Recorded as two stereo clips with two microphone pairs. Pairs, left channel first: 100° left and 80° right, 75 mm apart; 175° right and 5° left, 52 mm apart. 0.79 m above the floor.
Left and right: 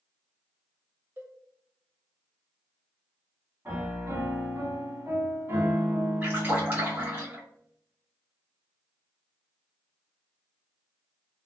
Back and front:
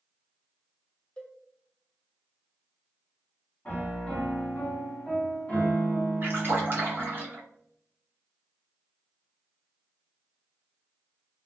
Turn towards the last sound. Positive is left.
turn(degrees=-25)